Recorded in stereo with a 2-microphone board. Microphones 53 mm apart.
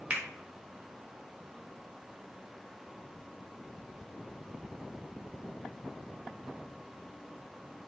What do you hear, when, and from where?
0.1 s a finger snap: 25° right (ahead or behind), 0.7 m